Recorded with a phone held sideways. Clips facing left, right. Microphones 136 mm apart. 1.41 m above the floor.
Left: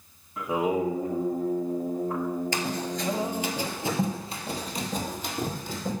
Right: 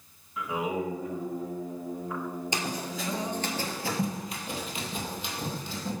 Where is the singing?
45° left (ahead or behind), 1.4 m.